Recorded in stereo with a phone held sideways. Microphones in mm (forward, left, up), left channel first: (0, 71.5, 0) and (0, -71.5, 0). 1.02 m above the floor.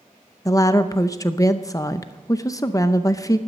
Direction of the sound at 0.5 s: 25° left (ahead or behind).